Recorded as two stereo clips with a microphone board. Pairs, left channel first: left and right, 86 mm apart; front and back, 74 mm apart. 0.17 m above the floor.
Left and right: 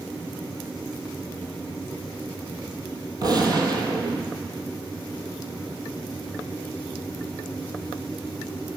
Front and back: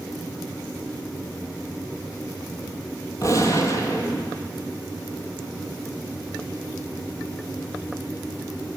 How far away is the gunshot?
About 0.9 m.